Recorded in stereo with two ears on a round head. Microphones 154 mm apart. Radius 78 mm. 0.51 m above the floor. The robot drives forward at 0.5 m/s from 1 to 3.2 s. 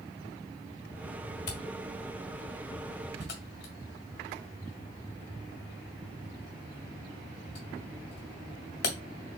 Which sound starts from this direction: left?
A camera shutter, at 1.5 s.